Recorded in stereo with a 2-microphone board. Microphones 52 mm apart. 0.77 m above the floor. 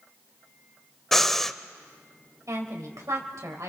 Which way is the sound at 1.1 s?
5° left (ahead or behind).